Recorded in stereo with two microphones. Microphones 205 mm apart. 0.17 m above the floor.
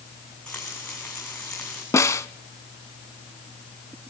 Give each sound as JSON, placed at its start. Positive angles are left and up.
{"t": 0.5, "sound": "frying", "side_deg": 5, "distance_m": 7.5}
{"t": 1.9, "sound": "a snare drum", "side_deg": 15, "distance_m": 0.5}